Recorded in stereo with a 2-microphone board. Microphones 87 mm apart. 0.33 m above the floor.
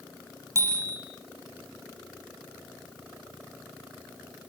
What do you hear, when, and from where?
0.6 s a bicycle bell: 35° right (ahead or behind), 7.5 m